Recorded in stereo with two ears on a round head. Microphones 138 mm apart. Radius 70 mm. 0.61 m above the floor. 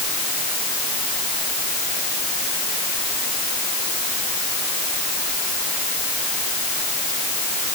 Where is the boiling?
No boiling in this recording.